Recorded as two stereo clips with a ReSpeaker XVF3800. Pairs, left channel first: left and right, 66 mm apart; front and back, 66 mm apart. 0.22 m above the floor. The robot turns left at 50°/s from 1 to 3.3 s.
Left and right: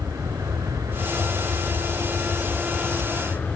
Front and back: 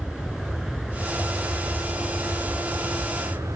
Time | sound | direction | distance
0.0 | an aircraft | 95° right | ?